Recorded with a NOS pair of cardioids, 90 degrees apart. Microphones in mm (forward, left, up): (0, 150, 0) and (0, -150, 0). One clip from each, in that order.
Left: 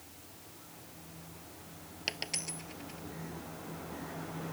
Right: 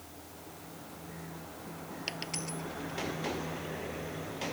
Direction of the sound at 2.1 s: 20° left.